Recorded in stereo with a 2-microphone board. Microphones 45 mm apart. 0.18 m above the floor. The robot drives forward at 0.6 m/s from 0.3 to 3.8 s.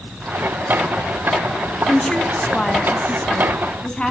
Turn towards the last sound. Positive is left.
turn(degrees=15)  # may be behind; listen again after turning